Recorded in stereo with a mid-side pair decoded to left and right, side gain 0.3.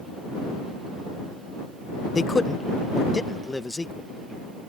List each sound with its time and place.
2.1 s a man speaking: 45° left; by 4.1 s 20° left